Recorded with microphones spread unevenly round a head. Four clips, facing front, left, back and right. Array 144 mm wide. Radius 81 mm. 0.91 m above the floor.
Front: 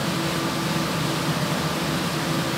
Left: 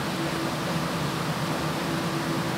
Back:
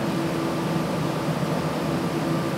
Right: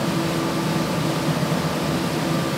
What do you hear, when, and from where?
Only background noise.